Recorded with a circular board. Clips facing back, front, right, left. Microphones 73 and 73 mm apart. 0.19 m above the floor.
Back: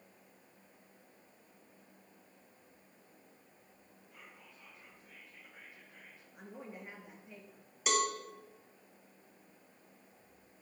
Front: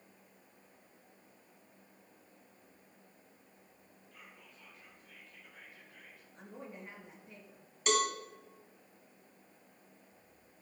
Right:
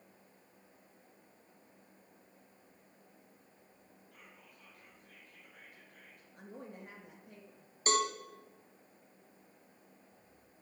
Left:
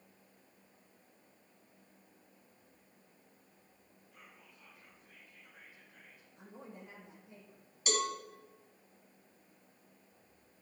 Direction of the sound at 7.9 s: 95° right.